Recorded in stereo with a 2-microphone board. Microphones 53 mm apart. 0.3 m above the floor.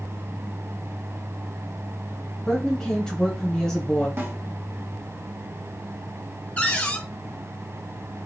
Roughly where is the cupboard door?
Left.